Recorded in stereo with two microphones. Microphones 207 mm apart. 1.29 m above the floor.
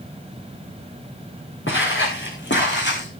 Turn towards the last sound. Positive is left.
turn(degrees=55)  # may be behind; listen again after turning